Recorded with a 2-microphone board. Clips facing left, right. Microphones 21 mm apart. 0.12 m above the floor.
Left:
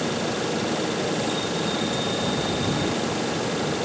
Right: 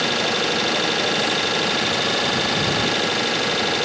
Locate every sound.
0.0 s an engine running: 50° right (ahead or behind)